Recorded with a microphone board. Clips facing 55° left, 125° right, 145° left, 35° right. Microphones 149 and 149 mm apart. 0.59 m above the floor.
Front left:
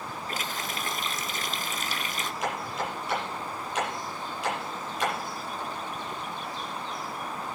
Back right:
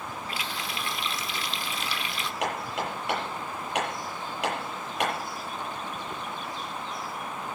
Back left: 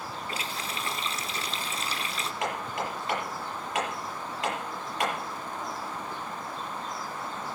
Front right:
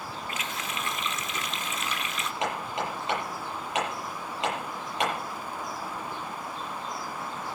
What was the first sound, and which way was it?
A running tap, 95° left.